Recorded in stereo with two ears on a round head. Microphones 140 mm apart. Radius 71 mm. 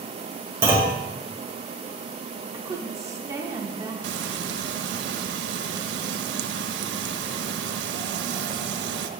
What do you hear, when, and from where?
0.6 s a clunk: 15° right (ahead or behind), 1.6 m
2.5 s a woman speaking: 20° right (ahead or behind), 0.9 m
4.0 s frying: 80° right, 0.5 m